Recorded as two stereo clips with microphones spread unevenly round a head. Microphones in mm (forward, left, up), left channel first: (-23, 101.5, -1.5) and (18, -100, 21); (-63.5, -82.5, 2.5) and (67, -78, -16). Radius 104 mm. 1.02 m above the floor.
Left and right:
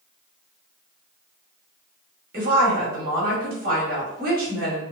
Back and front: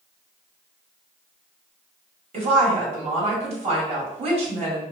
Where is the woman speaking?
30° right, 1.5 m.